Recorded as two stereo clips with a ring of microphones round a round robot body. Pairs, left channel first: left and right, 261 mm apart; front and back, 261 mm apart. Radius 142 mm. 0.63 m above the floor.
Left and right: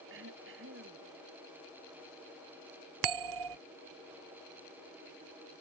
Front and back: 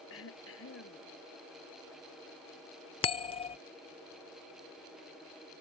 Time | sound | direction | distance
0.1 | throat clearing | 40° right | ?
3.0 | a bell | 70° right | ?